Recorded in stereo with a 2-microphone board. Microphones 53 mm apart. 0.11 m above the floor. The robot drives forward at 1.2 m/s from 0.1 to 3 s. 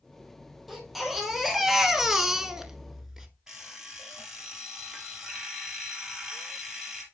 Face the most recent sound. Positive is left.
turn(degrees=-10)  # may be behind; listen again after turning